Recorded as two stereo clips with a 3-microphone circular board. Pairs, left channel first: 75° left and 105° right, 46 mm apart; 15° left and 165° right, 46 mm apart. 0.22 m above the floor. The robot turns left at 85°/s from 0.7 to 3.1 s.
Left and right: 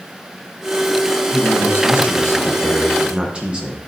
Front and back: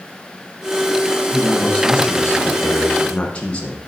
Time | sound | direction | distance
1.3 | a man speaking | 105° left | 1.7 m